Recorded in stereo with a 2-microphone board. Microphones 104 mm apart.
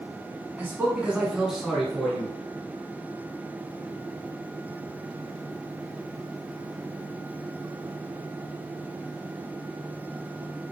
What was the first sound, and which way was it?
A man speaking, 20° right (ahead or behind).